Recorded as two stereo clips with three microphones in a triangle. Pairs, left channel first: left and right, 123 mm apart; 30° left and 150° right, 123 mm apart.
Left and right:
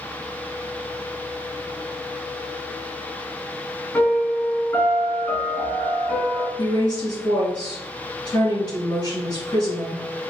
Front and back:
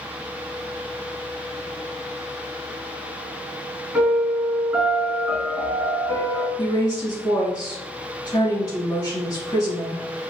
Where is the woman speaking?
55° left, 1.9 m.